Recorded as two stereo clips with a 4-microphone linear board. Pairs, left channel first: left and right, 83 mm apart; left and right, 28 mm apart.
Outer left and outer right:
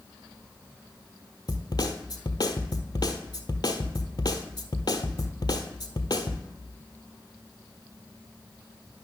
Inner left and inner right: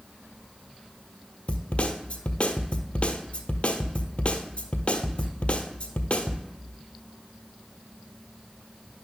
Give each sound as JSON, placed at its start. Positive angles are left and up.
{"t": 1.5, "sound": "a snare drum", "side_deg": 60, "distance_m": 1.1}